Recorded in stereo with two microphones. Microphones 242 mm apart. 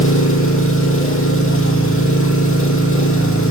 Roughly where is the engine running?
Left.